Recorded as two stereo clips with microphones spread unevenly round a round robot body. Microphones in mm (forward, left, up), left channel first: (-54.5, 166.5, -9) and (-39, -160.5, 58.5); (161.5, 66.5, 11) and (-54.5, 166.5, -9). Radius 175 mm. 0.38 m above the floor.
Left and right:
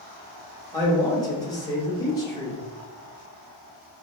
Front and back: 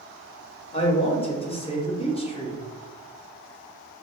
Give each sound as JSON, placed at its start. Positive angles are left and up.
{"t": 0.7, "sound": "a man speaking", "azimuth_deg": 35, "distance_m": 1.1}